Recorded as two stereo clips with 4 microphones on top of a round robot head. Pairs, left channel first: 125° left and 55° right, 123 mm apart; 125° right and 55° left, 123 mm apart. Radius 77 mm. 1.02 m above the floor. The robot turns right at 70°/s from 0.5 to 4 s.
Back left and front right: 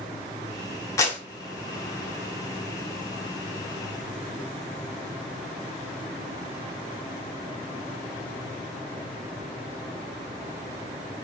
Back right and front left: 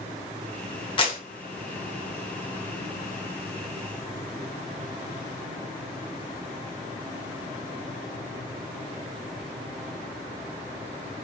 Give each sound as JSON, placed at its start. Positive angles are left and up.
{"t": 1.0, "sound": "a clap", "azimuth_deg": -170, "distance_m": 1.1}